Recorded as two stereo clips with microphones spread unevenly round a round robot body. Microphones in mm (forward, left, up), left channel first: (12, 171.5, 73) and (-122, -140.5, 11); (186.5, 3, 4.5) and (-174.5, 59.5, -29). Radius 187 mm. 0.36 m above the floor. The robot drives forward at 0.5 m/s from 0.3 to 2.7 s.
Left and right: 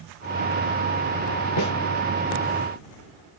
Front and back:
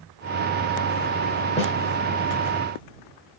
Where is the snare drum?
60° left, 1.4 m; by 1.7 s 65° left, 1.4 m.